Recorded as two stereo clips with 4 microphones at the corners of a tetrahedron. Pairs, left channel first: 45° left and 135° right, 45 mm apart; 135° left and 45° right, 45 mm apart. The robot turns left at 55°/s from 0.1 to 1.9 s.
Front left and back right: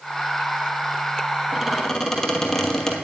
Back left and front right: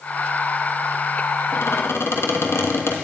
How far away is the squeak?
About 1.3 m.